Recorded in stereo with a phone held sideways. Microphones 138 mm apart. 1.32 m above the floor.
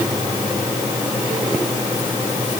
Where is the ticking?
No ticking in this recording.